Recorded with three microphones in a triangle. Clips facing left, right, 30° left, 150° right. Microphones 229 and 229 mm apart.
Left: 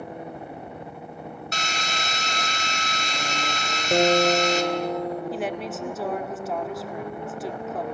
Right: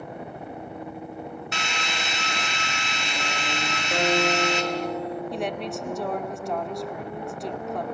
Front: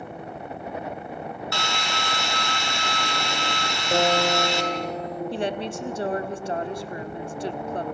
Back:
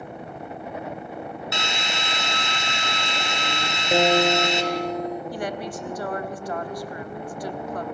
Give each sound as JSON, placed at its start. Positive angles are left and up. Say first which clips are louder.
{"t": 1.5, "sound": "a drill", "louder": "even, even", "azimuth_deg": 140, "distance_m": 3.0}
{"t": 3.9, "sound": "a guitar", "louder": "left 5 dB, back 3 dB", "azimuth_deg": 135, "distance_m": 3.0}
{"t": 5.3, "sound": "a woman speaking", "louder": "even, front 2 dB", "azimuth_deg": 5, "distance_m": 1.3}